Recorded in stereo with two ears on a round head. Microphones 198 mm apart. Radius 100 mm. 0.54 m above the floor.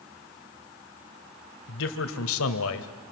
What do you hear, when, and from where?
1.7 s a man speaking: 55° left (ahead or behind), 2.5 m; by 3.1 s 60° left (ahead or behind), 2 m